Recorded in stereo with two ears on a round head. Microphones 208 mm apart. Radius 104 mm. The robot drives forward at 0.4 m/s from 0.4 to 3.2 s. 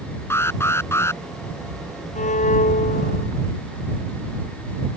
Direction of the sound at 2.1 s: 30° left (ahead or behind).